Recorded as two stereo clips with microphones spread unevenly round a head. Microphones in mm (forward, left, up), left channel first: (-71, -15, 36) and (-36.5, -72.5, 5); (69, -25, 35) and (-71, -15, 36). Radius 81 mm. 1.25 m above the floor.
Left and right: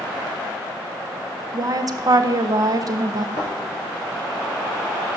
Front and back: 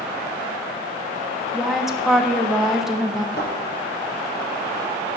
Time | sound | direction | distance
1.5 | a woman speaking | 95° right | 0.7 m
3.4 | a thud | 15° right | 3.5 m